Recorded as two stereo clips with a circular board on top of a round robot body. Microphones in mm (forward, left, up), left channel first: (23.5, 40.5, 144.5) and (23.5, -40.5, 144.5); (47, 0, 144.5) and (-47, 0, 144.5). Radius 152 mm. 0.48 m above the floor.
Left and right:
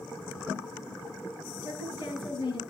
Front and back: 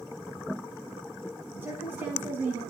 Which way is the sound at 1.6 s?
110° left.